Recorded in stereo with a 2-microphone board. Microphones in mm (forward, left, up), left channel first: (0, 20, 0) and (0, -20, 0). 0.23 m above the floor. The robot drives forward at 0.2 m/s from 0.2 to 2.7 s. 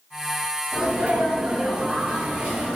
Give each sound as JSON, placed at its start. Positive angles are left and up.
{"t": 0.7, "sound": "a sneeze", "side_deg": -20, "distance_m": 1.1}